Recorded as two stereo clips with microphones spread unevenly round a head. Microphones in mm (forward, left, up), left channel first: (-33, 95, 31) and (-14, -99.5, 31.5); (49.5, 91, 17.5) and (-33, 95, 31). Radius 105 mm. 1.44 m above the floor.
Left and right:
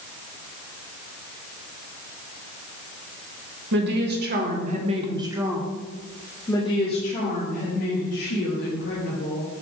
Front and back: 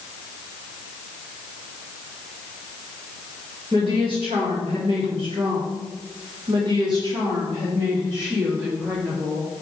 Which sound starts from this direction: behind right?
A woman speaking, at 3.7 s.